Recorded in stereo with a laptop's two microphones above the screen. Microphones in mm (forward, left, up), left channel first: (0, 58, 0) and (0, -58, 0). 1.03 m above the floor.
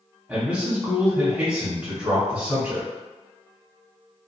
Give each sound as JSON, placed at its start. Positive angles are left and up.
{"t": 0.3, "sound": "a man speaking", "side_deg": -15, "distance_m": 1.3}